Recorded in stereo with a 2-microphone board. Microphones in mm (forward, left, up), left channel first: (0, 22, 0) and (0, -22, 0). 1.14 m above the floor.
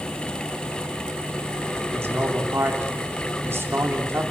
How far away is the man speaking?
About 3.5 m.